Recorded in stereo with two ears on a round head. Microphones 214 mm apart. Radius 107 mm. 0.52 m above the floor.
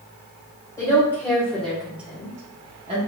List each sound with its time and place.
0.8 s a woman speaking: 15° left (ahead or behind), 1.8 m; by 3.0 s 25° right (ahead or behind), 1.3 m